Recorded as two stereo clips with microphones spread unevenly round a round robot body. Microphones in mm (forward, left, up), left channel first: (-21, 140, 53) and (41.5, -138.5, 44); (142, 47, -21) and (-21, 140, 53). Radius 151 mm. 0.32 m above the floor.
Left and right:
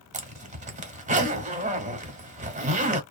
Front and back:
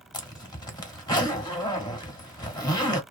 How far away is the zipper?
About 0.9 m.